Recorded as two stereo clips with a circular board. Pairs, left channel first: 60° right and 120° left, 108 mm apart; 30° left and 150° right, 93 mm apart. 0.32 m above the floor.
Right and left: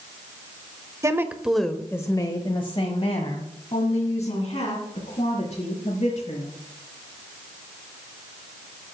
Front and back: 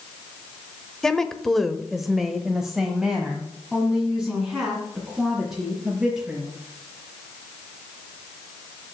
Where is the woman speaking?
110° left, 0.9 m; by 6.5 s 70° right, 4 m.